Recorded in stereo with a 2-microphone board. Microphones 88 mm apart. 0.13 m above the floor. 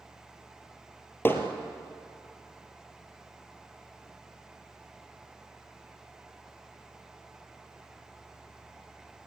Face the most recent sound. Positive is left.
turn(degrees=25)  # may be behind; listen again after turning